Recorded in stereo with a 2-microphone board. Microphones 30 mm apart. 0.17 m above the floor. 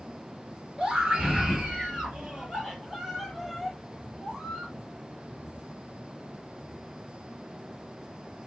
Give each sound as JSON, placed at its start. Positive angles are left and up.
{"t": 0.8, "sound": "a scream", "side_deg": -25, "distance_m": 2.5}